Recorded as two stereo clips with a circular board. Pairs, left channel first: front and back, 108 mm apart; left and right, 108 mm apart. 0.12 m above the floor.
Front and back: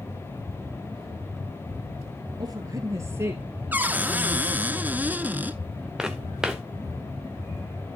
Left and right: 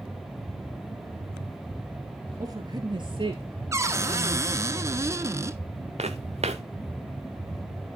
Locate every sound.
2.4 s a woman speaking: 135° right, 2.5 m; by 4.5 s 95° right, 3 m
3.7 s a cupboard door: 120° right, 0.5 m
6.0 s footsteps: 95° right, 0.9 m